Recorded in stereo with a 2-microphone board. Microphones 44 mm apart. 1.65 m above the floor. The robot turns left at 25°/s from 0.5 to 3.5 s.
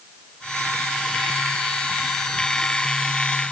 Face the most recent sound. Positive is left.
No sound to turn to.